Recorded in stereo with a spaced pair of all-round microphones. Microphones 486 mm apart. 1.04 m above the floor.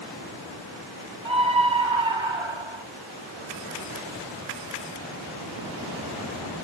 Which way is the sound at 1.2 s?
70° right (ahead or behind).